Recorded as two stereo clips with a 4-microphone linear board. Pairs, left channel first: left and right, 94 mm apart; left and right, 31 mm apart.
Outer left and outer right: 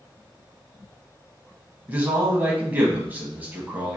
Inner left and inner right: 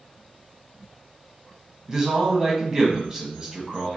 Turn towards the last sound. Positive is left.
turn(degrees=-20)  # may be behind; listen again after turning